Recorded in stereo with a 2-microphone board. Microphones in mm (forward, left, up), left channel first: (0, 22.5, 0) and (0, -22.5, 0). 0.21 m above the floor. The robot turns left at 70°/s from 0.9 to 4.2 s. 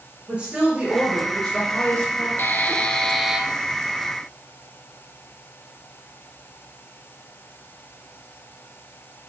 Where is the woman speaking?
150° right, 3 m; by 2.3 s 110° left, 3 m.